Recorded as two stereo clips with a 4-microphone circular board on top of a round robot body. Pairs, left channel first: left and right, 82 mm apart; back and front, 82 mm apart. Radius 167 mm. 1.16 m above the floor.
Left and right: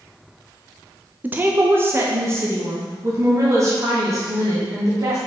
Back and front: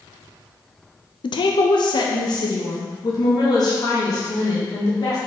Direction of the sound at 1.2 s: 160° right.